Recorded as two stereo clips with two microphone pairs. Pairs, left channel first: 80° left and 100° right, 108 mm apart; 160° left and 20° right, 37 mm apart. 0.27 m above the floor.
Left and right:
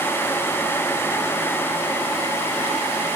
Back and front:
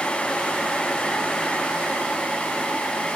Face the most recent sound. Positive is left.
No sound to turn to.